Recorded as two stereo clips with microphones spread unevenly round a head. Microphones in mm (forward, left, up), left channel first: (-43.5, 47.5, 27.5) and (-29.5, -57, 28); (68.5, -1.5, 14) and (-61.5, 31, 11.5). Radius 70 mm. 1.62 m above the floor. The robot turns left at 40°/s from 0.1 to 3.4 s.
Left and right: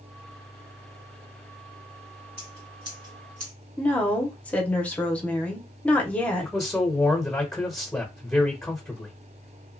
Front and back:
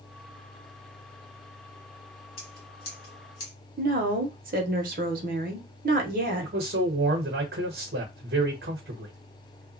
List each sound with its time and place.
2.4 s scissors: 5° right, 2 m; by 3.5 s 45° right, 2 m
3.8 s a woman speaking: 175° left, 0.9 m
6.4 s a man speaking: straight behind, 1.0 m